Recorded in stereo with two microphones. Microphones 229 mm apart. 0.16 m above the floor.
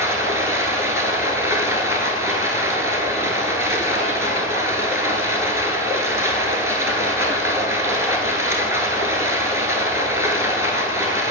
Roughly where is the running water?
Centre.